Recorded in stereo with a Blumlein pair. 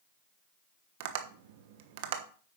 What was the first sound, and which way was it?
Tapping, 50° right.